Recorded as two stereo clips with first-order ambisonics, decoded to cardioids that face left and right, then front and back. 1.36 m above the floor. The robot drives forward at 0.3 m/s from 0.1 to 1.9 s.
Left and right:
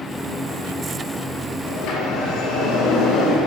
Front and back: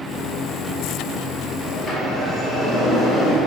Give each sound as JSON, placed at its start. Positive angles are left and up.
{"t": 1.7, "sound": "a sliding door", "azimuth_deg": 90, "distance_m": 1.5}